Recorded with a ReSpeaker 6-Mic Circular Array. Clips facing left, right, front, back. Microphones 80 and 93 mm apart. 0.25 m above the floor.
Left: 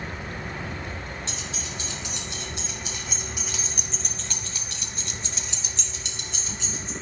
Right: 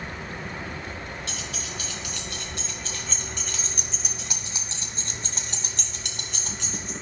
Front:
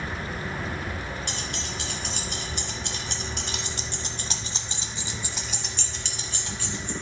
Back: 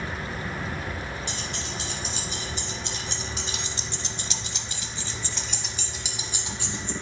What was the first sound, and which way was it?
Keys jangling, 30° left.